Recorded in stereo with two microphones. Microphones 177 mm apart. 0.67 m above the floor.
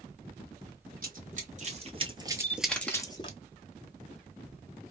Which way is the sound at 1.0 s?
55° right (ahead or behind).